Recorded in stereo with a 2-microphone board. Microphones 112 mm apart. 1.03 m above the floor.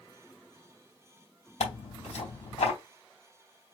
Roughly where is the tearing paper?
Left.